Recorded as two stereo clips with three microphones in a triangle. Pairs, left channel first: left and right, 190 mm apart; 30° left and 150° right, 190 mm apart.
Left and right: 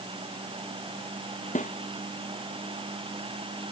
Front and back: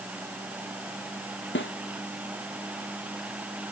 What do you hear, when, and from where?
1.6 s a snare drum: 40° left